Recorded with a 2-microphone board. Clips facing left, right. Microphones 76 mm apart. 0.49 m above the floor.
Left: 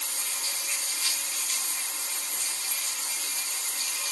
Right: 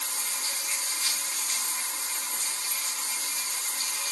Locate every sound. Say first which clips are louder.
0.0 s running water: right 2 dB; 45° right (ahead or behind), 0.9 m